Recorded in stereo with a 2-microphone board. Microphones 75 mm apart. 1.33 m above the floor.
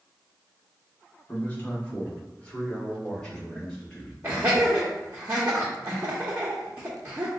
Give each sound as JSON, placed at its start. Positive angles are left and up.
{"t": 1.3, "sound": "a man speaking", "side_deg": 30, "distance_m": 1.1}
{"t": 4.2, "sound": "laughter", "side_deg": -25, "distance_m": 0.6}